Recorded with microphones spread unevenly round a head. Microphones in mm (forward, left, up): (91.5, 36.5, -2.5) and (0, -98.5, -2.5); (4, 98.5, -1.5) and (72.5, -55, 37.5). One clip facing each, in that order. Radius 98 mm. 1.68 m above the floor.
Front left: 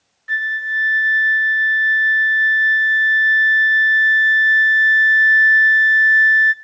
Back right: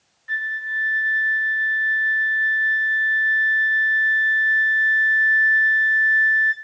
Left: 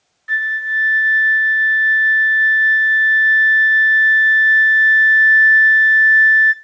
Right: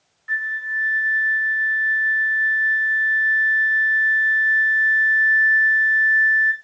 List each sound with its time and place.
0.3 s a flute: 65° left, 1.8 m